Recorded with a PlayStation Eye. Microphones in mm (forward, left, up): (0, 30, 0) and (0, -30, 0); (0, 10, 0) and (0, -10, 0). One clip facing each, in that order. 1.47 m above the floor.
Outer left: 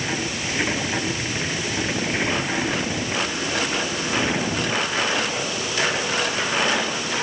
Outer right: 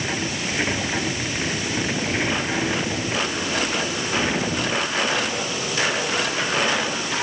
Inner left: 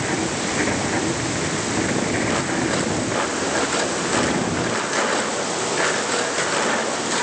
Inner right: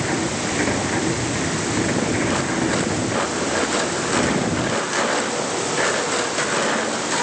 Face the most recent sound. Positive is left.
No sound to turn to.